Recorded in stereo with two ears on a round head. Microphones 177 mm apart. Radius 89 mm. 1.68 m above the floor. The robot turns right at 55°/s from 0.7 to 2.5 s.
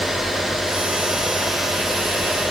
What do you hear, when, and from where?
Only background noise.